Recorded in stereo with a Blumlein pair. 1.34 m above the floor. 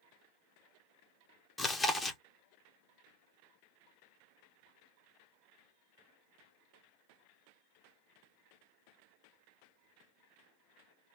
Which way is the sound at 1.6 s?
10° left.